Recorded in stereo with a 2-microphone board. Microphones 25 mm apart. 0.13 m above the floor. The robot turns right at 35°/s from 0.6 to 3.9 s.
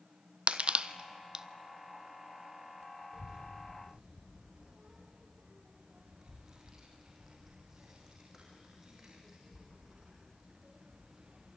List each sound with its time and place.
0.5 s crushing: 60° right (ahead or behind), 0.7 m; by 1.4 s 35° right (ahead or behind), 0.7 m
3.1 s a child speaking: 45° right (ahead or behind), 4 m; by 11.6 s 20° right (ahead or behind), 4 m